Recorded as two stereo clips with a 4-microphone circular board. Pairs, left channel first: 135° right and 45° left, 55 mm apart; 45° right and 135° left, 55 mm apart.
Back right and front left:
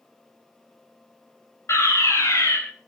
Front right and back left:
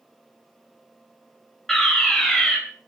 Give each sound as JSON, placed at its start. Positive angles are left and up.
{"t": 1.7, "sound": "a fire alarm", "azimuth_deg": -125, "distance_m": 3.5}